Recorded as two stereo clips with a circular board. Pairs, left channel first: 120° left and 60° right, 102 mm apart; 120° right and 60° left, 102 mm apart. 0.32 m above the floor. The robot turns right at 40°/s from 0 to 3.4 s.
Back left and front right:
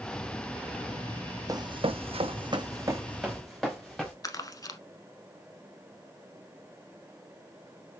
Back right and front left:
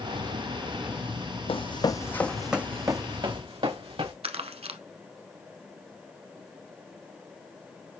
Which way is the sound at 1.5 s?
110° right.